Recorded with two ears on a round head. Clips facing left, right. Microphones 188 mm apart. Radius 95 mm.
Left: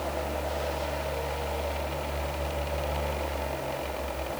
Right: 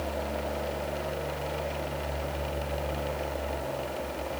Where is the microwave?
No microwave in this recording.